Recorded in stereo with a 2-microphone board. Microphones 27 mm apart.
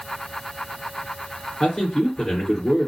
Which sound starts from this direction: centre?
A man speaking, at 1.6 s.